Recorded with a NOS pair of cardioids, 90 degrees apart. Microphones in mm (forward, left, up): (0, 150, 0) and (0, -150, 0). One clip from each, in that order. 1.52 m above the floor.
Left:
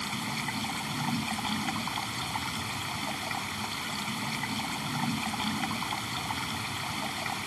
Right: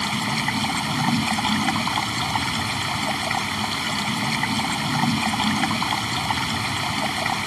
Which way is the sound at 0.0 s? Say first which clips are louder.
Right 10 dB; 70° right.